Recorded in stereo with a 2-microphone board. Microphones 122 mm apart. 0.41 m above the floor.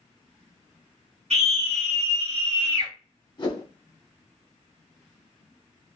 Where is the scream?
65° right (ahead or behind), 2.5 m; by 2.9 s 50° right (ahead or behind), 2 m.